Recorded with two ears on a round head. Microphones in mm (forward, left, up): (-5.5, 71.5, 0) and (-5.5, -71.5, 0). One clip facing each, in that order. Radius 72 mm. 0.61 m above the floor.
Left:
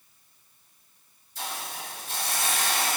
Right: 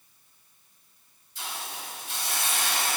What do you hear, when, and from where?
1.4 s a hiss: 40° left (ahead or behind), 1.1 m